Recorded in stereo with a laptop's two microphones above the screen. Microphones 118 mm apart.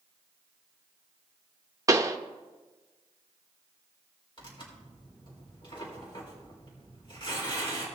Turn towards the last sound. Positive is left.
turn(degrees=40)  # may be behind; listen again after turning